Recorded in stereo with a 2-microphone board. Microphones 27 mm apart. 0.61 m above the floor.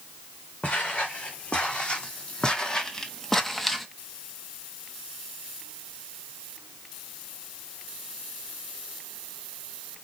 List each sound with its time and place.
0.6 s footsteps: 45° left (ahead or behind), 2 m; by 3.9 s centre (ahead or behind), 0.8 m